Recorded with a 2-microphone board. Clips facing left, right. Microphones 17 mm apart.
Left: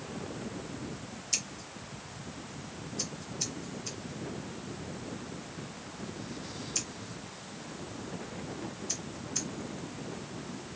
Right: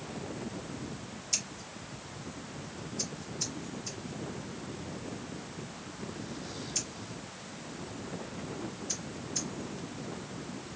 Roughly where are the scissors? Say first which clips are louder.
Even; left.